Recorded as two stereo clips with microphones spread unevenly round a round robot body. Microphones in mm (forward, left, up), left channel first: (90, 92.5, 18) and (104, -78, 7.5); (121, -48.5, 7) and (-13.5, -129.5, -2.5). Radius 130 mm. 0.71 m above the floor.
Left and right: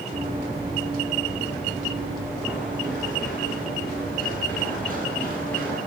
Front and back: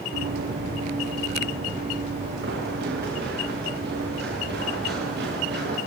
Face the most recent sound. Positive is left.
turn(degrees=180)